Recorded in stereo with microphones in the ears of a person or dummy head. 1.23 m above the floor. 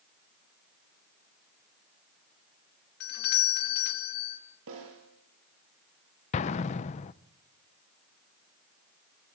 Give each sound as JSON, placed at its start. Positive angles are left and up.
{"t": 3.0, "sound": "a doorbell", "side_deg": 50, "distance_m": 3.5}
{"t": 4.7, "sound": "a snare drum", "side_deg": -70, "distance_m": 6.5}
{"t": 6.3, "sound": "an explosion", "side_deg": 35, "distance_m": 0.6}